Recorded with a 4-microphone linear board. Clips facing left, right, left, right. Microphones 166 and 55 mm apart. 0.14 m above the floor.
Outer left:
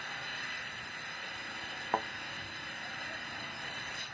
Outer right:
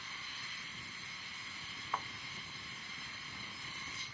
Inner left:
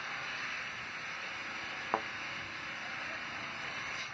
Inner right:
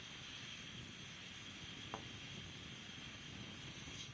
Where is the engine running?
65° left (ahead or behind).